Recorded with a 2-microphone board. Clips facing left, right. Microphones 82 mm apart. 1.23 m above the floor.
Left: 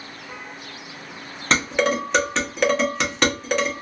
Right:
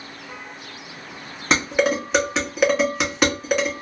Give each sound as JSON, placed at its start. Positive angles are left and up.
{"t": 1.5, "sound": "dishes clattering", "side_deg": -5, "distance_m": 0.9}